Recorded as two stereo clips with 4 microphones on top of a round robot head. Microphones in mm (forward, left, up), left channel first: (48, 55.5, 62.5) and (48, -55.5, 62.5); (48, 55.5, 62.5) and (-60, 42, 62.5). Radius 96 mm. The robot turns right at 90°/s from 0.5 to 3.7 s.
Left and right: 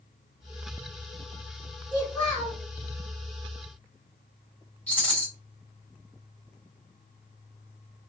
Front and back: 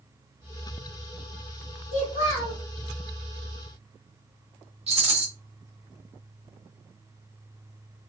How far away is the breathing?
No breathing in this recording.